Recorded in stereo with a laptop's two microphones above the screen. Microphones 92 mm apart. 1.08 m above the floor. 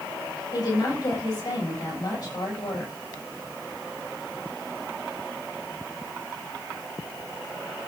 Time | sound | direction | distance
0.5 | a woman speaking | 45° left (ahead or behind) | 6.5 m